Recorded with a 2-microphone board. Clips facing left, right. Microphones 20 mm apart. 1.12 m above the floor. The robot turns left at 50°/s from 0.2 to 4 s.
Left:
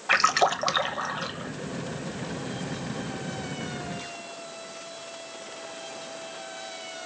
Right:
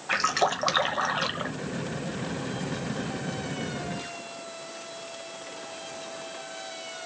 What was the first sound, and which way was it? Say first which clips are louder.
A splash: left 3 dB; 20° left.